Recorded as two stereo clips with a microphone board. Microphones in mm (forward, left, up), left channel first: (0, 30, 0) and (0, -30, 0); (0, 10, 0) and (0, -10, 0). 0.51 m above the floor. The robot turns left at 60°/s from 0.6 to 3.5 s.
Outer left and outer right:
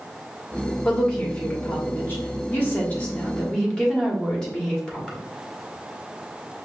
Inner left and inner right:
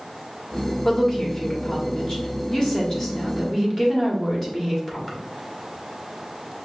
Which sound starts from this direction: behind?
A woman speaking, at 0.8 s.